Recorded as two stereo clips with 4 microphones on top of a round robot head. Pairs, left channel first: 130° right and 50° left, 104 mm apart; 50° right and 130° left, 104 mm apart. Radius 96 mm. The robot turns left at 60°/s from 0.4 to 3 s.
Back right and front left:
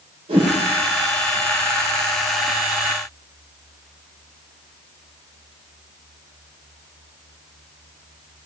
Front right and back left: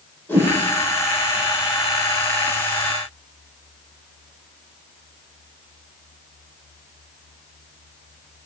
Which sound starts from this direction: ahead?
A whoosh, at 0.3 s.